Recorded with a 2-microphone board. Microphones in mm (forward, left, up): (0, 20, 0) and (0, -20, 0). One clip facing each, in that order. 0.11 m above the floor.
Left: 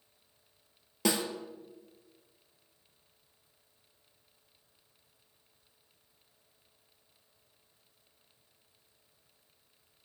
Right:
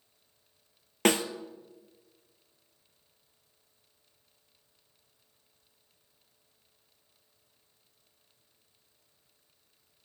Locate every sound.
1.1 s a snare drum: 55° right (ahead or behind), 0.5 m